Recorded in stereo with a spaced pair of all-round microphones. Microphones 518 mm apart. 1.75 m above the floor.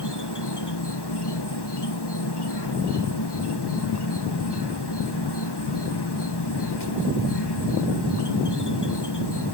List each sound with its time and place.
0.0 s an insect: 50° left (ahead or behind)